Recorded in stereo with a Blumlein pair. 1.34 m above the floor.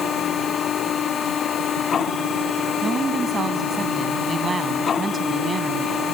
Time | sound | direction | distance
0.0 | a machine running | 25° left | ?
2.8 | a woman speaking | 15° right | ?